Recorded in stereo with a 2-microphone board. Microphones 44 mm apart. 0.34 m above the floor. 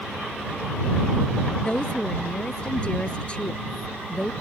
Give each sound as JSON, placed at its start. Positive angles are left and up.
{"t": 1.6, "sound": "a woman speaking", "side_deg": 20}